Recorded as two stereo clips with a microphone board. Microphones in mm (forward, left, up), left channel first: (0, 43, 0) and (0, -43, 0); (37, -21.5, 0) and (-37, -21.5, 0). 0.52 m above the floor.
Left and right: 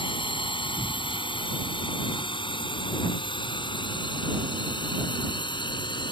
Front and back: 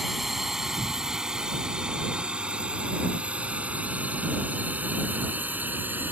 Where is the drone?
95° left; by 6.1 s 115° left.